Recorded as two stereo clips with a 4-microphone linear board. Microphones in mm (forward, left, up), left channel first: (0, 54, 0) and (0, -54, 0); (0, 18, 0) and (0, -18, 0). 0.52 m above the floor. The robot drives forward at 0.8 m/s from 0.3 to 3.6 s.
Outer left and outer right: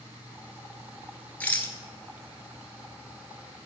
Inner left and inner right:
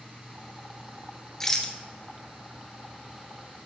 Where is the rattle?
15° left (ahead or behind), 1.3 m.